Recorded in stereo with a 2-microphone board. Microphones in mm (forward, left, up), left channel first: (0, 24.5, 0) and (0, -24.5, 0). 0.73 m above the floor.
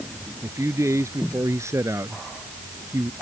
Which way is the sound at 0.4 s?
75° right (ahead or behind).